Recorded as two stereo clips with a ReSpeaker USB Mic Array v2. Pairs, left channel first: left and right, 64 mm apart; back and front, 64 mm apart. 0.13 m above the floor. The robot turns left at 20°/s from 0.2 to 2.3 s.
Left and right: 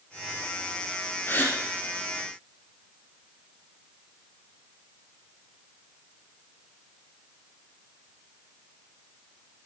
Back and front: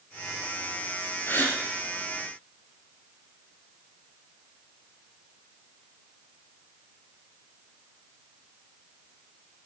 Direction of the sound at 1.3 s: 135° left.